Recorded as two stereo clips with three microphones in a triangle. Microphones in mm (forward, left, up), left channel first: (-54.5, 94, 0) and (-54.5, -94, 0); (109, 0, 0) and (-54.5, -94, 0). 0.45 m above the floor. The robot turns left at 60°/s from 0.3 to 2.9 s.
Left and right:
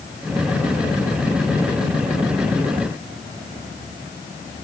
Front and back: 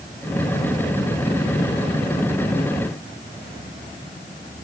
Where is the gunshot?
I don't hear a gunshot.